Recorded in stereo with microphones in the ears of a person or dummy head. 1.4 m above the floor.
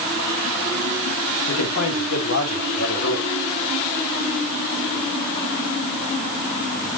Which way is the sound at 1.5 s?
80° left.